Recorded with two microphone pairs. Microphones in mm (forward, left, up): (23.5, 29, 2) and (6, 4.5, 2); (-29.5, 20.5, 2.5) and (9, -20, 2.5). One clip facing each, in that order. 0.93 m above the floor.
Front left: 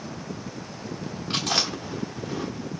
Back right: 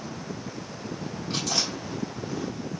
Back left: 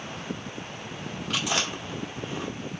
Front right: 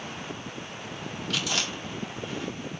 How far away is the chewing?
About 1.5 m.